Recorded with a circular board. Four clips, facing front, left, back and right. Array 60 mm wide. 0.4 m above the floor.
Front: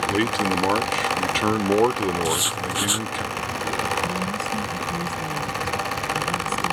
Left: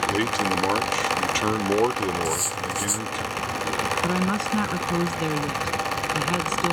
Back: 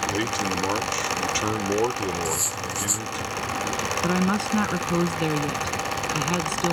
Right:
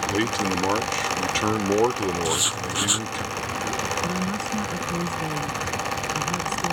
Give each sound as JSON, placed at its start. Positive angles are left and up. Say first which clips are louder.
{"t": 0.1, "sound": "a man speaking", "louder": "left 1 dB, front 4 dB", "azimuth_deg": -10}
{"t": 2.2, "sound": "writing", "louder": "right 1 dB, front 4 dB", "azimuth_deg": -45}
{"t": 4.0, "sound": "a woman speaking", "louder": "left 3 dB, back 2 dB", "azimuth_deg": 145}